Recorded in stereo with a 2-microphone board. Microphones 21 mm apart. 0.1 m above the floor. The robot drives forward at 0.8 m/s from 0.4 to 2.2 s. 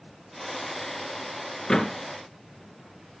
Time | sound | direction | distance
1.7 | a door slam | 20° left (ahead or behind) | 1.2 m